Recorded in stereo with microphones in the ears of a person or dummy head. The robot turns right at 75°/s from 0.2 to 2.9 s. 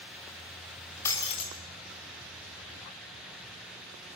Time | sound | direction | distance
1.1 | breaking glass | 15° left | 3 m